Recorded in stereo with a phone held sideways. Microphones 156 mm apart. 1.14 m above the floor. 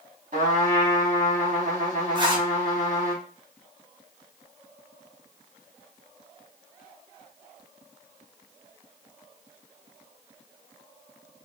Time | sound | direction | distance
0.3 | a trumpet | 60° right (ahead or behind) | 1.0 m
2.1 | a zipper | 30° right (ahead or behind) | 0.6 m